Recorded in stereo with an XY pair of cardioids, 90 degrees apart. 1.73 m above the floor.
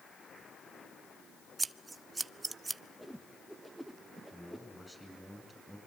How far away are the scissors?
About 0.7 m.